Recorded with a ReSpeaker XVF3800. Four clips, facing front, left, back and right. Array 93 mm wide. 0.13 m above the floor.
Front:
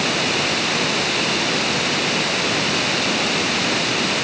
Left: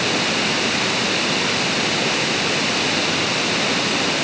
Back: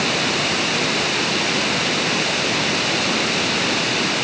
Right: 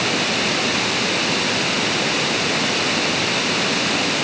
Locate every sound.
Only background noise.